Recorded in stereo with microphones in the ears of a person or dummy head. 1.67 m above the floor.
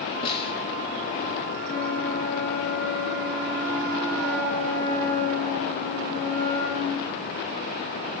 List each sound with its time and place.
0.2 s a snare drum: 25° left (ahead or behind), 2.5 m
1.6 s a flute: 65° left (ahead or behind), 8.5 m